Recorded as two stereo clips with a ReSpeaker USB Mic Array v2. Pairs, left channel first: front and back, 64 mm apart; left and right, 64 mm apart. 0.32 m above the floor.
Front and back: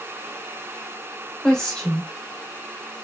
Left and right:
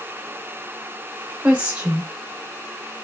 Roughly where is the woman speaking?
Ahead right.